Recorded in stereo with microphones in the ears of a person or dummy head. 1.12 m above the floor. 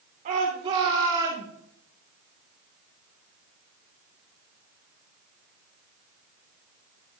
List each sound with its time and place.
0.2 s a shout: 40° right (ahead or behind), 2.5 m; by 1.5 s 15° right (ahead or behind), 3 m